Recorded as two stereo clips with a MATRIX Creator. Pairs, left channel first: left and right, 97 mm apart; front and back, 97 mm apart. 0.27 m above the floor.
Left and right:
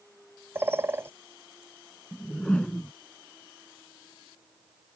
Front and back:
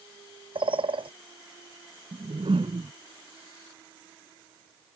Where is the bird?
155° right.